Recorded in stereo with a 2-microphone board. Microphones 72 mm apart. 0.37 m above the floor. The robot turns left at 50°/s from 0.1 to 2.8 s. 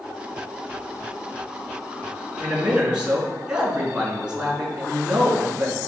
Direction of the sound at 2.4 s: 5° left (ahead or behind).